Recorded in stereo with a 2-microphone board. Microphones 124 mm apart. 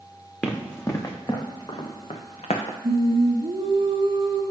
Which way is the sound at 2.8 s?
50° right (ahead or behind).